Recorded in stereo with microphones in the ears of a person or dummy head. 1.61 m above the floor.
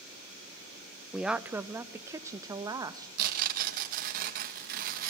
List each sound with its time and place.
1.1 s a woman speaking: centre (ahead or behind), 0.8 m; by 3.1 s 20° right (ahead or behind), 1.9 m
3.2 s tearing paper: 50° right (ahead or behind), 2.5 m